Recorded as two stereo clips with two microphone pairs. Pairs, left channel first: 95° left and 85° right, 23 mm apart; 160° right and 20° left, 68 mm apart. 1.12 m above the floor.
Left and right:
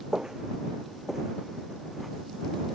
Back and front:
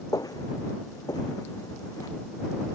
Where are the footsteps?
145° right; by 2.1 s 175° right.